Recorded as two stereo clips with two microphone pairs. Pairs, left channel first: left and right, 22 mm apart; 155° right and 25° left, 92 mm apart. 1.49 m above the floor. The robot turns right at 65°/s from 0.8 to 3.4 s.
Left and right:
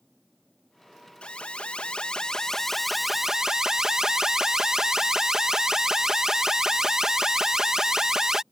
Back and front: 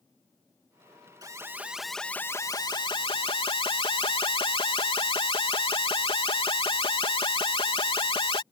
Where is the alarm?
70° left; by 8.4 s 150° right.